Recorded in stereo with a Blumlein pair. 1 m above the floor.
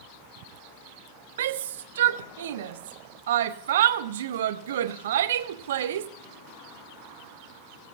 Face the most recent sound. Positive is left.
turn(degrees=-60)